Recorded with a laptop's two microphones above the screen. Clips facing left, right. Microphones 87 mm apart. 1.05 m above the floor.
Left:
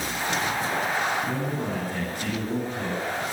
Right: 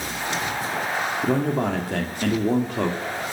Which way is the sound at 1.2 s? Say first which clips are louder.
Right 6 dB; 75° right (ahead or behind).